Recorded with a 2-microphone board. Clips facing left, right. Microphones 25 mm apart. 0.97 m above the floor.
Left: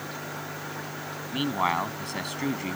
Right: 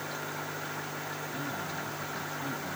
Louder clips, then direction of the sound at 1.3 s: Left 14 dB; 85° left.